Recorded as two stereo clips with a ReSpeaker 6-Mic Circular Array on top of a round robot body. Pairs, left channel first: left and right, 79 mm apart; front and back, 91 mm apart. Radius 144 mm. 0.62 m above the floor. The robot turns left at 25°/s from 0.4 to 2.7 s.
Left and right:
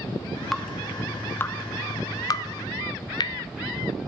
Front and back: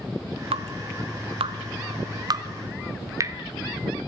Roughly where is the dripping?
Behind.